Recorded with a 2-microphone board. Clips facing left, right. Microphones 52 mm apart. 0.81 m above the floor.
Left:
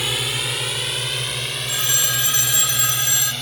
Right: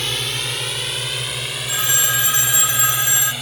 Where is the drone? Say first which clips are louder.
Even; 5° left (ahead or behind); by 3.4 s 10° right (ahead or behind).